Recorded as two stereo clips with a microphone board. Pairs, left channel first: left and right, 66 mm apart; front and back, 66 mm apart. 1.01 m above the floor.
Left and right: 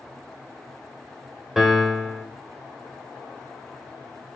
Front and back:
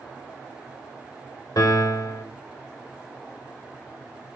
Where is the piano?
5° right, 1.4 m.